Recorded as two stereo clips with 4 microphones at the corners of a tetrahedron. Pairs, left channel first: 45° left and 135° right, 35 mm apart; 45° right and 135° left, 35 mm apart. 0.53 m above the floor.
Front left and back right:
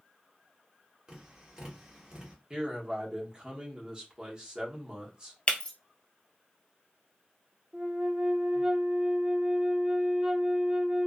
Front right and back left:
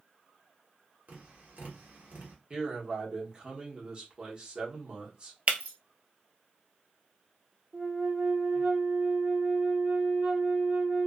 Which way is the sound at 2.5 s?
175° left.